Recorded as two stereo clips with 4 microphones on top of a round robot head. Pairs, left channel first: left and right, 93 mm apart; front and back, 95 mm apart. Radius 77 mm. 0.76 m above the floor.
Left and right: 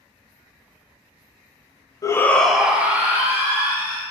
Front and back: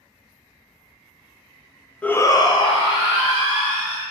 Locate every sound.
2.0 s a shout: 70° left, 0.6 m; by 4.0 s 30° right, 2 m